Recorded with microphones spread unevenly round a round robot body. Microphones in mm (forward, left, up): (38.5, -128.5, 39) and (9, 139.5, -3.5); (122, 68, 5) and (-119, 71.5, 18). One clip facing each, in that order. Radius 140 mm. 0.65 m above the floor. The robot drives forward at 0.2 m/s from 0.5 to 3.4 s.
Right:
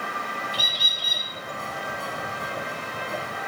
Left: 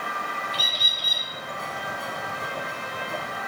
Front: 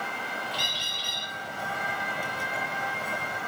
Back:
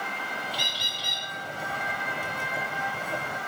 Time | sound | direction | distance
0.5 | a bird | 165° right | 0.7 m